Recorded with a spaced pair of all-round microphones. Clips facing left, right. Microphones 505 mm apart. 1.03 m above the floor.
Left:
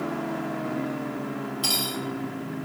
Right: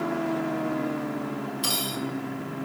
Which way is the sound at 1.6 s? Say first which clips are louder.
Even; 10° left (ahead or behind).